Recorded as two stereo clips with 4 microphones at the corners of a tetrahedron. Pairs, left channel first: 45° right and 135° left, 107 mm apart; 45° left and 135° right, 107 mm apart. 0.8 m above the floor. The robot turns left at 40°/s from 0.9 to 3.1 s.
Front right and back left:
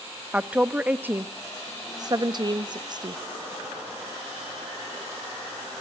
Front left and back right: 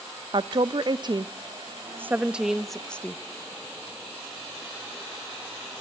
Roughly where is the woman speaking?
Behind right.